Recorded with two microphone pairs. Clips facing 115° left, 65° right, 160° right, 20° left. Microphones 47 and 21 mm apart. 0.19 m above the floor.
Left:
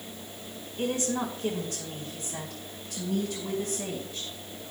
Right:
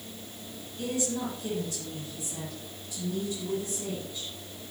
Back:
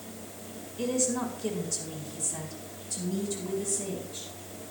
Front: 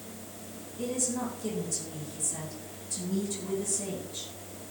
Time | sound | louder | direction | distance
0.8 | a woman speaking | left 2 dB, back 3 dB | 150° left | 3 m